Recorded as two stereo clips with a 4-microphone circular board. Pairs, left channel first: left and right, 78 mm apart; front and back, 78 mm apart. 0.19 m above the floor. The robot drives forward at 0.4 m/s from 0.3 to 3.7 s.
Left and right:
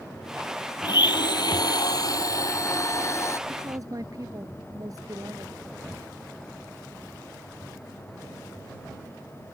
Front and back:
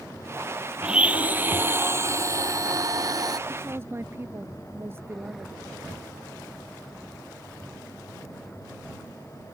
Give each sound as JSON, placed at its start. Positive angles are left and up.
{"t": 0.8, "sound": "a blender", "azimuth_deg": 100}
{"t": 3.5, "sound": "a woman speaking", "azimuth_deg": -125}